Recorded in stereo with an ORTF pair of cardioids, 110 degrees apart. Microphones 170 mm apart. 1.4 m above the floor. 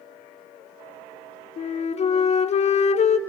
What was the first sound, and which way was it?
A flute, 40° left.